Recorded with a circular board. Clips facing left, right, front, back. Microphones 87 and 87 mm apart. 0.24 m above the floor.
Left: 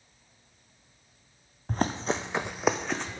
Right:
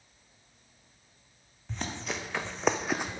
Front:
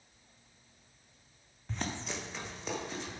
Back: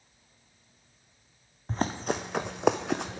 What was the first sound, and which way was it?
Running footsteps, 130° left.